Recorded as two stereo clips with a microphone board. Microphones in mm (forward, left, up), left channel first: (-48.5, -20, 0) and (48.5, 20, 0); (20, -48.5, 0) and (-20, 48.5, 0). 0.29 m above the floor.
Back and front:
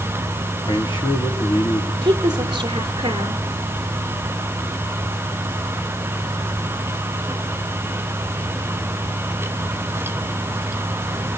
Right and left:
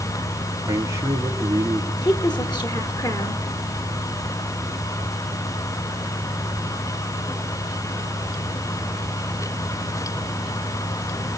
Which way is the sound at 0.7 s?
170° left.